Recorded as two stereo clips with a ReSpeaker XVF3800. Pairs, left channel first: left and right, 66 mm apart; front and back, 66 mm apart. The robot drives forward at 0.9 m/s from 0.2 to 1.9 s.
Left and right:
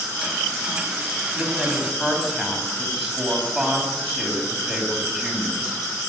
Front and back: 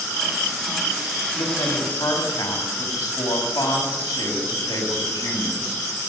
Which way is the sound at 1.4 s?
5° right.